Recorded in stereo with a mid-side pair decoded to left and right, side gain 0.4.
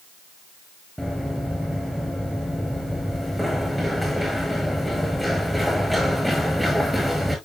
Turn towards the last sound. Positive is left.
turn(degrees=0)